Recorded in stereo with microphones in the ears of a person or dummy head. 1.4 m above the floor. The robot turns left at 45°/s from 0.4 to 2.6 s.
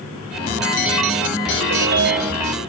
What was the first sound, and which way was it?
A ringtone, 95° right.